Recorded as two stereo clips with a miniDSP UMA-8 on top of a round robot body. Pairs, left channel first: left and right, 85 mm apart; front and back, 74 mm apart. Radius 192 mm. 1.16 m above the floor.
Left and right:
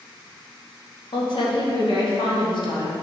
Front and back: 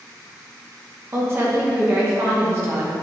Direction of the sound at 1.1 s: 120° left.